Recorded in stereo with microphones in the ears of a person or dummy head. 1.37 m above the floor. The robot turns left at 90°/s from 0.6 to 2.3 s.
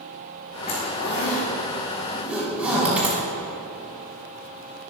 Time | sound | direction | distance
0.7 | a zipper | 45° left (ahead or behind) | 5.5 m